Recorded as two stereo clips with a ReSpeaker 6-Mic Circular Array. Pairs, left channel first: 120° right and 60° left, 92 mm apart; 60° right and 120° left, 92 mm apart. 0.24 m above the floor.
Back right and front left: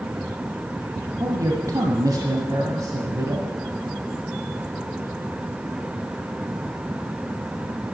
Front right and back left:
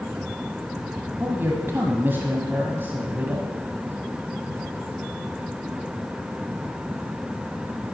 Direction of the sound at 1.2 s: 65° left.